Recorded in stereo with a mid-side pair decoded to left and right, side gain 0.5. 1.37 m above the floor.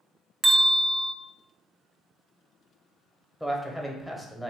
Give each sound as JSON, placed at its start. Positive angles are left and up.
{"t": 0.4, "sound": "a bell", "azimuth_deg": -10, "distance_m": 0.7}
{"t": 3.4, "sound": "a man speaking", "azimuth_deg": 0, "distance_m": 0.9}